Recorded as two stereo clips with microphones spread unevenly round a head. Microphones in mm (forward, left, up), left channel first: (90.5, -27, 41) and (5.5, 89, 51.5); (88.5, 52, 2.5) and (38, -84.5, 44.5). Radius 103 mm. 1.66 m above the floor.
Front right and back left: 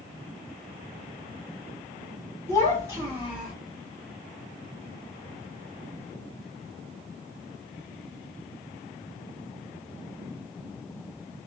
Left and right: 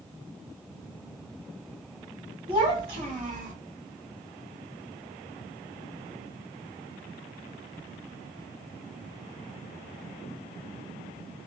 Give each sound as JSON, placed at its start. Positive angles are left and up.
{"t": 2.5, "sound": "a child speaking", "azimuth_deg": -170, "distance_m": 2.5}